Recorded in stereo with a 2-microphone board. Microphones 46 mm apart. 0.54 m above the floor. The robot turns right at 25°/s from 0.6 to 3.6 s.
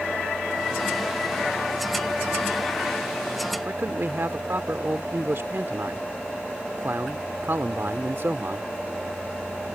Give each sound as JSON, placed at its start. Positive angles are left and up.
{"t": 3.6, "sound": "a man speaking", "side_deg": -55}